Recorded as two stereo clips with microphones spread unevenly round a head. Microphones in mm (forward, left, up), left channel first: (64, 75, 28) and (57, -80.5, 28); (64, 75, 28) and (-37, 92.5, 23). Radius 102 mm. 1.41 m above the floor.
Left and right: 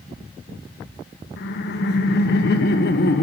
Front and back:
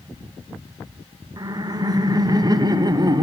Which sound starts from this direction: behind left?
Laughter, at 1.4 s.